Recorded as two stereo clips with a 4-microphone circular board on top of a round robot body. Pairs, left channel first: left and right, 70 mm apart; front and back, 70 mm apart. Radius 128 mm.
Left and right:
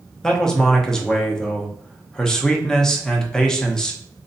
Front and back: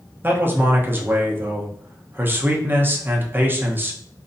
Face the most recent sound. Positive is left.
turn(degrees=165)